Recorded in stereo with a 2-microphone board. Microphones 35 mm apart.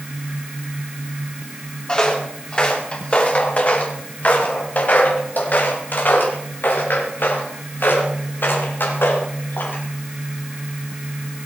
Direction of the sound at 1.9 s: 25° left (ahead or behind).